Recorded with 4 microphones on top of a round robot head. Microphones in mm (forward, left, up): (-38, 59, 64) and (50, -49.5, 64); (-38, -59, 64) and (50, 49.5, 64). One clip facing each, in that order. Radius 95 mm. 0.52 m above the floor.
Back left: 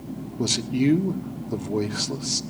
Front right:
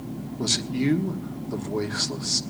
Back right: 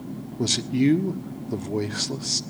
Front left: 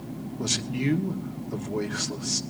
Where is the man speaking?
165° right, 1.2 m.